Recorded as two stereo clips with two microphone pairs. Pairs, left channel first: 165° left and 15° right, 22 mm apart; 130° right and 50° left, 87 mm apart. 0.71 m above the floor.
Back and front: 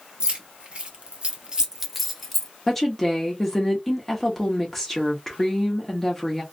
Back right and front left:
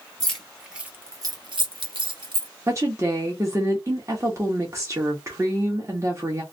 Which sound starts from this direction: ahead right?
Keys jangling, at 0.2 s.